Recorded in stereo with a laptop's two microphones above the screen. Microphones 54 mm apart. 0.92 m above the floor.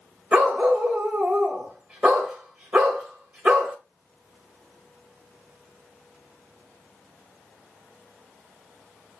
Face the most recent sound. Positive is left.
turn(degrees=-25)  # may be behind; listen again after turning